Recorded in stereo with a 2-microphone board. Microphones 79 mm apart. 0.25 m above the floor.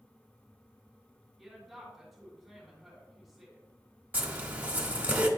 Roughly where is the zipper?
Centre.